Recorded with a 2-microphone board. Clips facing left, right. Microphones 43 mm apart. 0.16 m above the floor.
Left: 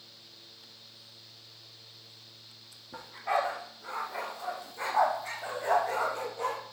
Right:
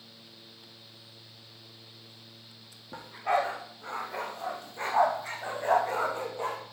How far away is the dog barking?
About 5.5 m.